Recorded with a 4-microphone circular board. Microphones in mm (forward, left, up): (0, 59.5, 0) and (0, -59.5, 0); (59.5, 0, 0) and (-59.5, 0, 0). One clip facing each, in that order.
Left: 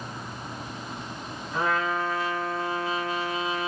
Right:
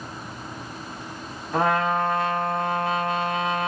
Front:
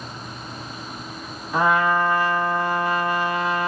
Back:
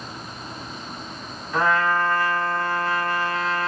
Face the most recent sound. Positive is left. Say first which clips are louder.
# right 5 dB, front 2 dB
turn(degrees=-75)